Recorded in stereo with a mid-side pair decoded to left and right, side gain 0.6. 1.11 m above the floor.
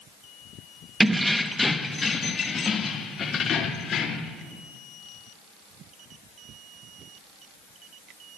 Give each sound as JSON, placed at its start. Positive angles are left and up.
{"t": 1.0, "sound": "keys jangling", "azimuth_deg": -15, "distance_m": 0.9}